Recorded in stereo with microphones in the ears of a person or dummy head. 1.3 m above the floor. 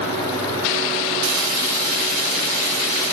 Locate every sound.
0.0 s a fan: 50° right (ahead or behind), 1.2 m